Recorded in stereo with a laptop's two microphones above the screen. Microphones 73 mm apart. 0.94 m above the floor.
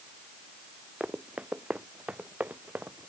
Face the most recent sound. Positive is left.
turn(degrees=-20)  # may be behind; listen again after turning